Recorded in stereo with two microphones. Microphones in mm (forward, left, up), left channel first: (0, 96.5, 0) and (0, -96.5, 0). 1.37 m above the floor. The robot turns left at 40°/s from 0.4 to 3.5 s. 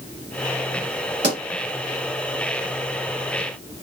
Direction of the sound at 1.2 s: 65° right (ahead or behind).